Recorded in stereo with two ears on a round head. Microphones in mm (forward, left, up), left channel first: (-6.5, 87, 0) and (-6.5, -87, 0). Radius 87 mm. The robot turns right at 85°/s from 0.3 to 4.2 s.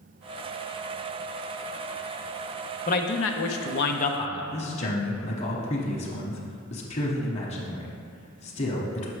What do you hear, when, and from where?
2.9 s a man speaking: 40° left, 0.6 m; by 4.4 s 155° left, 0.6 m
4.5 s a man speaking: 35° left (ahead or behind), 0.9 m